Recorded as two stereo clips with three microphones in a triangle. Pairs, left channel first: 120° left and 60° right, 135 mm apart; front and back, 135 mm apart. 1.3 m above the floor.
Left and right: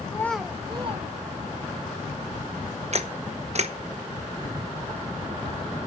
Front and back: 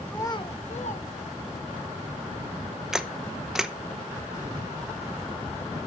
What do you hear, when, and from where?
0.1 s a child speaking: 75° left, 0.7 m; by 1.8 s 30° right, 2 m
2.9 s a camera shutter: 95° right, 0.8 m